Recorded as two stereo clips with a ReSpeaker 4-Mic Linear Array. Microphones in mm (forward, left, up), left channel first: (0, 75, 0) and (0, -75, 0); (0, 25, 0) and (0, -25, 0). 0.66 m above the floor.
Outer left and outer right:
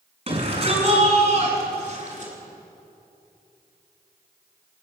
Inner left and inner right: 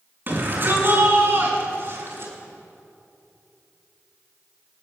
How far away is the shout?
About 5.5 m.